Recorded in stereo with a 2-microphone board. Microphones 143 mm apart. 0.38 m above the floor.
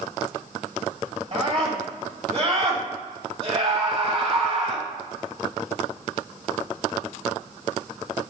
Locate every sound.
1.3 s a scream: 45° right (ahead or behind), 2 m